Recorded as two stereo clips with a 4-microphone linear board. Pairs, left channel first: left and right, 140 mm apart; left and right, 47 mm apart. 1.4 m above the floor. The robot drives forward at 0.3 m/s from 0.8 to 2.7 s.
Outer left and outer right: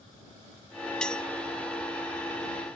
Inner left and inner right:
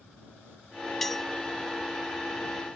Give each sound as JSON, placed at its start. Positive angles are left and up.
{"t": 1.0, "sound": "cutlery clinking", "side_deg": 5}